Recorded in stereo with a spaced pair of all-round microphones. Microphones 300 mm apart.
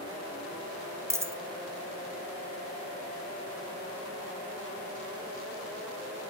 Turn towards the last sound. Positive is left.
turn(degrees=-10)  # may be behind; listen again after turning